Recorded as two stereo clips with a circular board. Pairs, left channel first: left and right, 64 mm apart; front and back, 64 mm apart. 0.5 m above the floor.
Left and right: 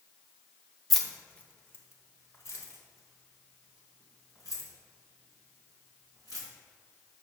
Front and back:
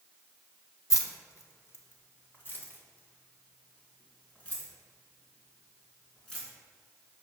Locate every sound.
0.9 s keys jangling: straight ahead, 0.7 m; by 6.5 s 75° left, 3.5 m